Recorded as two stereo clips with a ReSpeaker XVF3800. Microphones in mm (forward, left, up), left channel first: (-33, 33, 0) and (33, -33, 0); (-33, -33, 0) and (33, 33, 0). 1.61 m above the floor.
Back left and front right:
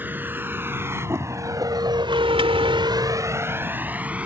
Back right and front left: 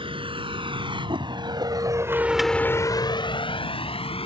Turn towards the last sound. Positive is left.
turn(degrees=-120)